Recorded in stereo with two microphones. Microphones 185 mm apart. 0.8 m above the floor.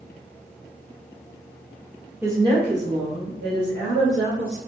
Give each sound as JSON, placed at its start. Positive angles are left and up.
{"t": 2.2, "sound": "a woman speaking", "side_deg": -10, "distance_m": 0.7}